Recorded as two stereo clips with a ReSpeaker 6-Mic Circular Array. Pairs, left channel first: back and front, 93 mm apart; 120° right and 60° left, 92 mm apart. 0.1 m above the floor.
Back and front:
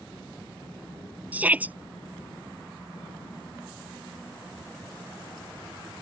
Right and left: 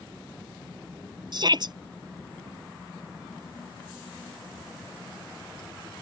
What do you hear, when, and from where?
1.3 s a shout: 70° left